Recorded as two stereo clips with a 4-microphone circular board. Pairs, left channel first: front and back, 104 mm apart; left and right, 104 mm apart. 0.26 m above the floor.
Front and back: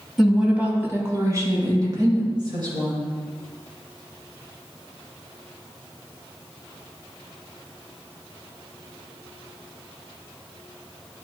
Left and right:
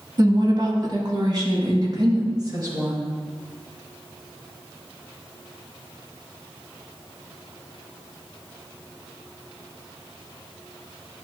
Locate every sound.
0.2 s a woman speaking: 85° right, 1.2 m; by 3.1 s 140° right, 3.5 m